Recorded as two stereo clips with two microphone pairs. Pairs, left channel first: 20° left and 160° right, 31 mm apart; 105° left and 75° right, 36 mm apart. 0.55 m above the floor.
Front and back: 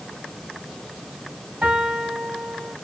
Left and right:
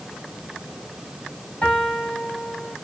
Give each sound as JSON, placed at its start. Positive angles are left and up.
{"t": 1.6, "sound": "a piano", "azimuth_deg": 155, "distance_m": 4.0}